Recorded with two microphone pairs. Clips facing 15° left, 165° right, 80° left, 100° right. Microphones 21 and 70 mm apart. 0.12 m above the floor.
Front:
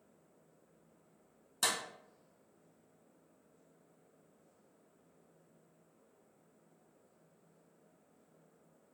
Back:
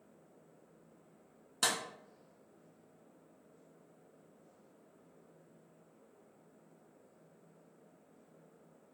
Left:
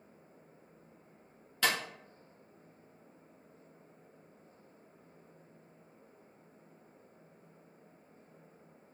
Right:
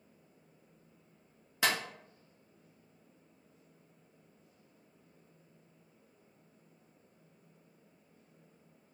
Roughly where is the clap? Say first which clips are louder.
Back 1 dB, even; right.